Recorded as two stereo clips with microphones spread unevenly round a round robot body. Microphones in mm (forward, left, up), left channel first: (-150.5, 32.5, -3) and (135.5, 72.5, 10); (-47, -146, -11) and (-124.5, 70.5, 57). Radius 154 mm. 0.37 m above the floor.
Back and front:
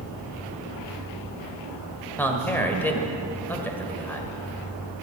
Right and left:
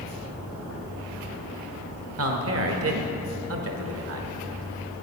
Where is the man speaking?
110° left, 1.8 m.